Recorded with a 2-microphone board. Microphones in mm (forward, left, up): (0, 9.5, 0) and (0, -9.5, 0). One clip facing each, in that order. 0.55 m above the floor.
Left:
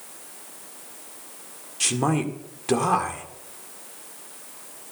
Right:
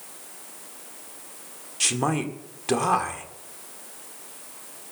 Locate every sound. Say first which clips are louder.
1.8 s a man speaking: left 1 dB; centre (ahead or behind), 1.8 m